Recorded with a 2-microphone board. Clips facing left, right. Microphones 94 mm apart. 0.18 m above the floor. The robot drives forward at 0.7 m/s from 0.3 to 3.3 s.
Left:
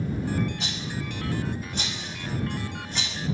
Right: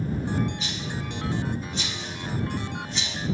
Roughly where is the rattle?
Left.